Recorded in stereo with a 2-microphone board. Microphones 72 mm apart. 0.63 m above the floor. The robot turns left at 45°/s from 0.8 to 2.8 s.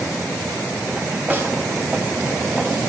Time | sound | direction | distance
1.3 | a snare drum | 25° right (ahead or behind) | 1.9 m